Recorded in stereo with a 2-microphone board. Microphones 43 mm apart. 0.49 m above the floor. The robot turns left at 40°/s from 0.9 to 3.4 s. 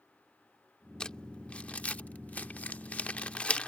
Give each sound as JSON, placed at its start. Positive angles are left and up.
{"t": 1.0, "sound": "crumpling", "side_deg": 20}